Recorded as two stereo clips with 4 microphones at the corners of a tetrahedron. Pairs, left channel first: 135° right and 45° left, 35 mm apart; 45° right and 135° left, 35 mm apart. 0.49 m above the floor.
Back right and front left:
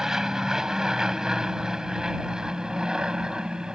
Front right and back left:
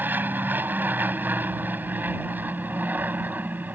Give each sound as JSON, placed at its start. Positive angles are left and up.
{"t": 0.0, "sound": "an aircraft", "azimuth_deg": 115}